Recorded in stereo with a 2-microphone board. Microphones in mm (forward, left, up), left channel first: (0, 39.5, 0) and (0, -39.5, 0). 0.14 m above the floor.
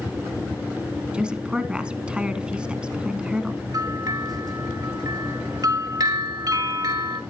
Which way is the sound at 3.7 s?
50° right (ahead or behind).